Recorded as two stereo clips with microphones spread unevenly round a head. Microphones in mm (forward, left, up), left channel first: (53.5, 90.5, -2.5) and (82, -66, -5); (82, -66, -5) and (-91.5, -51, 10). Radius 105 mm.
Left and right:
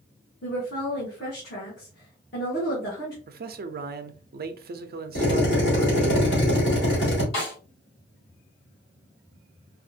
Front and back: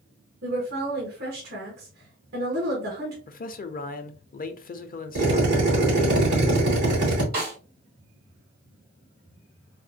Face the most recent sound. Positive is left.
turn(degrees=130)